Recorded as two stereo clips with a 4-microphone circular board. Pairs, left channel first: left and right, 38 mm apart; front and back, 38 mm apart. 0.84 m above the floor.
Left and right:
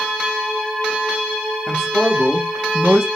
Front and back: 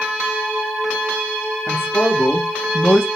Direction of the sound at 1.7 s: 15° left.